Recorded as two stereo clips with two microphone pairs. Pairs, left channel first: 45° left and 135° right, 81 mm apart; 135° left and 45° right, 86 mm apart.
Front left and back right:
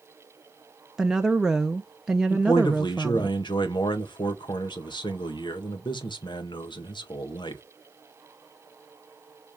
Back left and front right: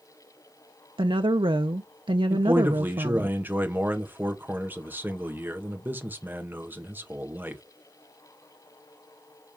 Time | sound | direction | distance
1.0 | a woman speaking | 50° right | 0.6 m
2.3 | a man speaking | 25° left | 1.5 m